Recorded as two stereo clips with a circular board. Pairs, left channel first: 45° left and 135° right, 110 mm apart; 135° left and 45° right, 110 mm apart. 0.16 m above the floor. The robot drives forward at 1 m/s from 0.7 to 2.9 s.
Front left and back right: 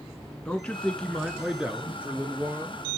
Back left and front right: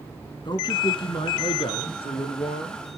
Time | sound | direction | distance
0.5 | a man speaking | 120° left | 1.9 m